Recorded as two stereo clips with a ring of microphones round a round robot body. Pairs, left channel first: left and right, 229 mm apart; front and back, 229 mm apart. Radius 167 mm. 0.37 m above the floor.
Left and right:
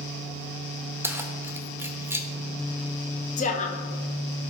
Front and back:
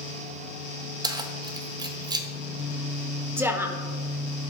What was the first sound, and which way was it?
Keys jangling, 150° right.